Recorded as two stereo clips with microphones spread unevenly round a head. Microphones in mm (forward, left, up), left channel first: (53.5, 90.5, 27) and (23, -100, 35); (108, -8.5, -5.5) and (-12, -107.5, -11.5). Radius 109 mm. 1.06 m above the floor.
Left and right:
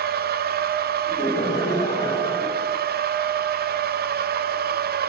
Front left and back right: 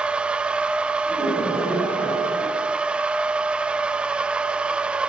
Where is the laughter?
155° left, 7.5 m.